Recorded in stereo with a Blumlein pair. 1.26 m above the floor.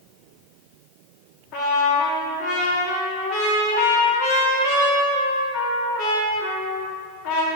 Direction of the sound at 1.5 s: 30° left.